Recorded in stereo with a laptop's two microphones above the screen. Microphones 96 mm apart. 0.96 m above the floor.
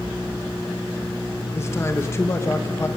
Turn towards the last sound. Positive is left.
turn(degrees=30)  # may be behind; listen again after turning